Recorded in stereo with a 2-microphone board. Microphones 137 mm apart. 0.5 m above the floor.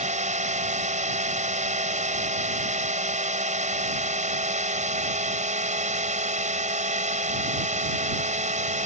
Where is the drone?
60° right (ahead or behind).